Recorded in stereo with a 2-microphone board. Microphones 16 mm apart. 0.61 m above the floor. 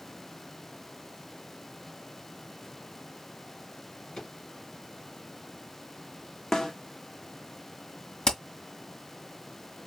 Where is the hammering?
40° left (ahead or behind), 2 m.